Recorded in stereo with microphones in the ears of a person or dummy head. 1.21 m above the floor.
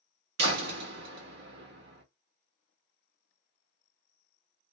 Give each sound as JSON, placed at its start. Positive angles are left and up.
{"t": 0.4, "sound": "a door slam", "side_deg": -55, "distance_m": 1.3}